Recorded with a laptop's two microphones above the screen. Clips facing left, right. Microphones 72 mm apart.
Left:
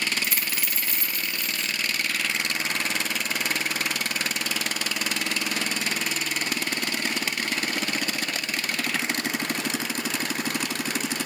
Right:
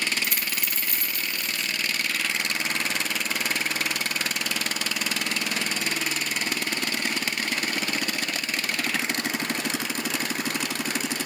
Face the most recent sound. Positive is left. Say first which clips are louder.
# even
turn(degrees=-55)  # may be behind; listen again after turning